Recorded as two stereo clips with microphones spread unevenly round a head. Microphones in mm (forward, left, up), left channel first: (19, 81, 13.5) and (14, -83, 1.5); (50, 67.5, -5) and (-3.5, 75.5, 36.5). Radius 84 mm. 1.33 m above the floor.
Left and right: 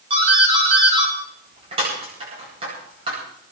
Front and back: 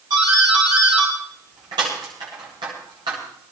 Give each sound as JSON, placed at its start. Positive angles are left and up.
{"t": 0.1, "sound": "a doorbell", "azimuth_deg": -150, "distance_m": 10.0}